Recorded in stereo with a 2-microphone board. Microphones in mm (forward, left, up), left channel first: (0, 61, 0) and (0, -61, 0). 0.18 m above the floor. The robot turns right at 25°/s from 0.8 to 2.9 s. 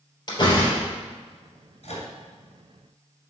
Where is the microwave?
60° left (ahead or behind), 2 m.